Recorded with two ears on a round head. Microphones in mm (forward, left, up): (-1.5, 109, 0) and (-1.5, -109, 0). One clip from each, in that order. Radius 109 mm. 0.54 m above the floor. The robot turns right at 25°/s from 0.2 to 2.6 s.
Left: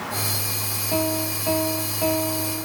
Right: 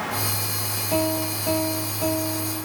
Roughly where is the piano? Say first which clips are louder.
Right 1 dB; ahead.